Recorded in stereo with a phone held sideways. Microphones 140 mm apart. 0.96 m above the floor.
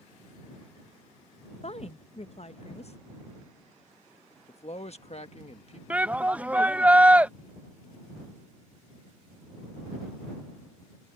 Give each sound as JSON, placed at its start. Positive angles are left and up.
{"t": 1.6, "sound": "a woman speaking", "side_deg": 50}
{"t": 4.5, "sound": "a man speaking", "side_deg": 50}
{"t": 5.9, "sound": "a shout", "side_deg": -10}